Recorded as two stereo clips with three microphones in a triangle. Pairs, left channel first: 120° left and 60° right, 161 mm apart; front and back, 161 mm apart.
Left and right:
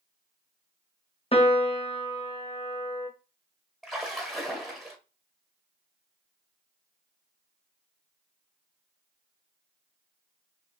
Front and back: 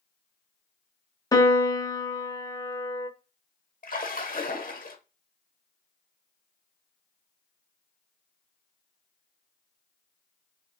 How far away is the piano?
About 0.6 m.